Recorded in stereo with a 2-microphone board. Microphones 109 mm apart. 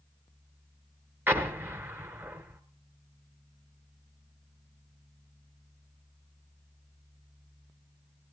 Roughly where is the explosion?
Centre.